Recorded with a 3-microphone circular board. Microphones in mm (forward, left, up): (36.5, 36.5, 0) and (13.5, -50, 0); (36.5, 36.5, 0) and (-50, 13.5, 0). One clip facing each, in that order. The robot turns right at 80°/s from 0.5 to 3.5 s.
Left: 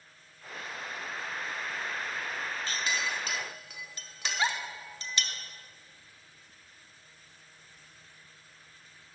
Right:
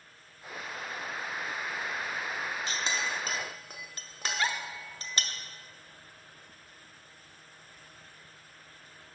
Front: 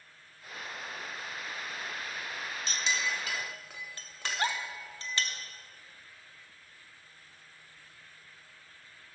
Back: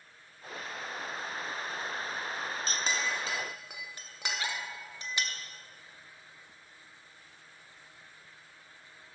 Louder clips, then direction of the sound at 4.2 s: Left 1 dB, front 4 dB; 5° left.